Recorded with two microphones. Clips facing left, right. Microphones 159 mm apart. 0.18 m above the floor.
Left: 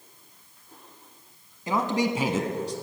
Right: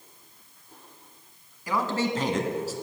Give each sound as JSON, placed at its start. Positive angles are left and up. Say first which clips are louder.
{"t": 1.7, "sound": "a man speaking", "louder": "left 2 dB", "side_deg": 25, "distance_m": 1.3}